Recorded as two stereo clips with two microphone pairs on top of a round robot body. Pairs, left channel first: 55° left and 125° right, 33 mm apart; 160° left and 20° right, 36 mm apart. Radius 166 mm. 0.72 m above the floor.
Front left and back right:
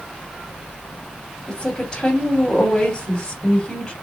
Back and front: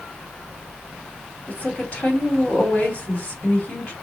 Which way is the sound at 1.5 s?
110° left.